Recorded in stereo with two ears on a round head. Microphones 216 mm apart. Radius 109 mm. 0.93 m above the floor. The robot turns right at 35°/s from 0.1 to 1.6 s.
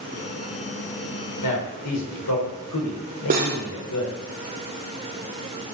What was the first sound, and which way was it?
A man speaking, 85° left.